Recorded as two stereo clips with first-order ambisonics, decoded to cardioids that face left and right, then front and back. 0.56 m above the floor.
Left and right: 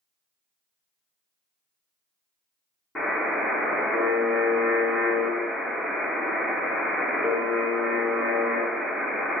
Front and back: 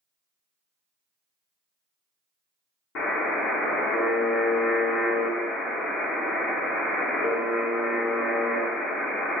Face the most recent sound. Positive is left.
turn(degrees=10)